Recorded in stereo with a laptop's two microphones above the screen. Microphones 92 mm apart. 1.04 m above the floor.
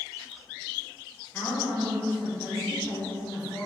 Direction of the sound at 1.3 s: 25° left (ahead or behind).